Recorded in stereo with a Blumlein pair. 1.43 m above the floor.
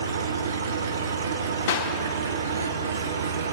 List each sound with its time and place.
0.0 s an engine running: 65° right, 0.7 m
1.7 s a clap: 60° left, 1.2 m